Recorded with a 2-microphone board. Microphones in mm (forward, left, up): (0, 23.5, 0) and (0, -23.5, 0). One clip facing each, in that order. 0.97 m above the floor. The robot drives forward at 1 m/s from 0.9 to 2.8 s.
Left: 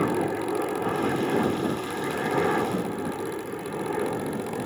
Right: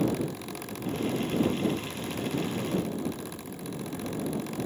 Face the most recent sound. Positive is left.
turn(degrees=60)  # may be behind; listen again after turning